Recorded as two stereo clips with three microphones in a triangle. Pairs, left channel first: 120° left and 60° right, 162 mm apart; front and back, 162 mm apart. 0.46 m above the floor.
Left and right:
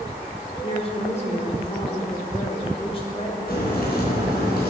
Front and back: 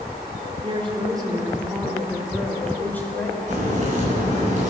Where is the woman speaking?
150° left, 1.6 m; by 3.4 s 70° left, 2 m.